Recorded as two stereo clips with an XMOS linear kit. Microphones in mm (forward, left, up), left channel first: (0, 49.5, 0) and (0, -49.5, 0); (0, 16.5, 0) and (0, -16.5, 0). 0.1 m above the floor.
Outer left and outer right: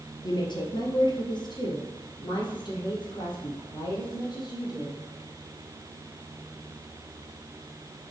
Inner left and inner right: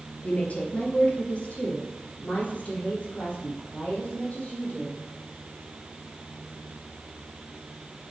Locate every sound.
0.2 s a woman speaking: 45° left (ahead or behind), 1.7 m